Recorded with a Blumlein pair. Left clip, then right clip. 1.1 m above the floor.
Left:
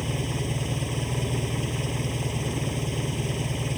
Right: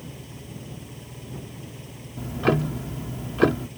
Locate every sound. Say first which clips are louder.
0.0 s an engine running: left 12 dB; 35° left
2.2 s ticking: right 6 dB; 45° right